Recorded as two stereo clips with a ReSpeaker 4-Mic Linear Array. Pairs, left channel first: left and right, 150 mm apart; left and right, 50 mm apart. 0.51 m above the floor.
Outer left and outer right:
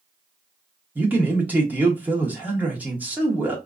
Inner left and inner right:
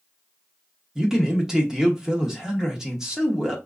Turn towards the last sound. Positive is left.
turn(degrees=-10)  # may be behind; listen again after turning